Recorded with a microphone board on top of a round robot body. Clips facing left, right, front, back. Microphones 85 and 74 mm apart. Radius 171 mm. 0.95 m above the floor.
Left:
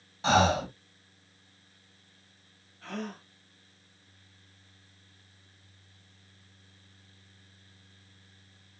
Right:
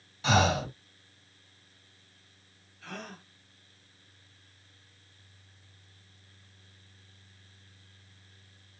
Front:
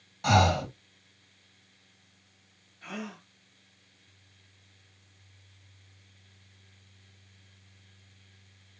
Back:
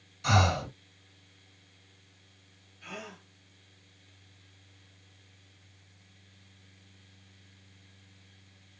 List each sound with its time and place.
0.2 s breathing: 35° left, 1.8 m
2.8 s a gasp: 50° left, 0.6 m